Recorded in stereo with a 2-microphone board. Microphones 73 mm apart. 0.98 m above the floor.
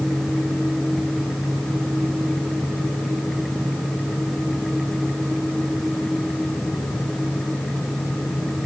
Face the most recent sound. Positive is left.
No sound to turn to.